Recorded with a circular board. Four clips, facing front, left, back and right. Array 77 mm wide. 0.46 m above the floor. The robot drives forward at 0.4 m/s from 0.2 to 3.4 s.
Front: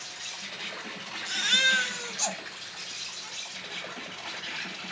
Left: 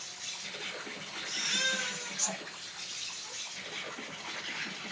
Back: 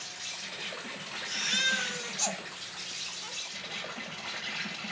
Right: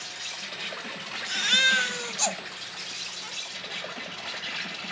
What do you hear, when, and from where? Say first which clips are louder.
0.0 s an insect: right 7 dB, front 1 dB; 90° right, 3 m; by 4.9 s 115° right, 3 m
1.3 s a baby crying: right 10 dB, front 5 dB; 55° right, 0.8 m; by 4.9 s 125° right, 0.8 m